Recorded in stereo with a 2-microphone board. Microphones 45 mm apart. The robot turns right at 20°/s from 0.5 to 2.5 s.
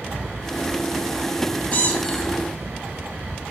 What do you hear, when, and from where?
1.7 s a squeak: 40° left (ahead or behind), 0.8 m; by 2.3 s 30° left (ahead or behind), 0.8 m